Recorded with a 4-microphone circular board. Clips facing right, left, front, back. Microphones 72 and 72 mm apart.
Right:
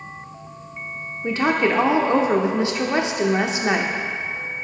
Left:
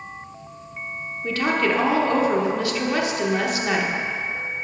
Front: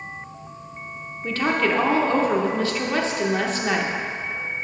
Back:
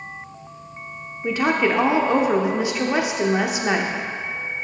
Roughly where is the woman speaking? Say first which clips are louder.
Right 2 dB, back 2 dB; behind right.